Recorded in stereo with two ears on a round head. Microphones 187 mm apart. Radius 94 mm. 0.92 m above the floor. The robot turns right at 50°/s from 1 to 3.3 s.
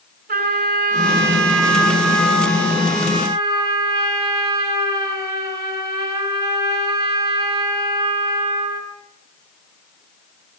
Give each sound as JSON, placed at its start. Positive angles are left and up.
{"t": 0.3, "sound": "a trumpet", "azimuth_deg": -130, "distance_m": 6.5}